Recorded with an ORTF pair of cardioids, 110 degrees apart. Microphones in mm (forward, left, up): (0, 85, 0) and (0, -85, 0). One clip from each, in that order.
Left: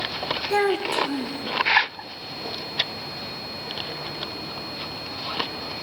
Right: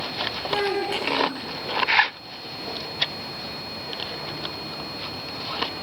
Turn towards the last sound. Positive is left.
turn(degrees=55)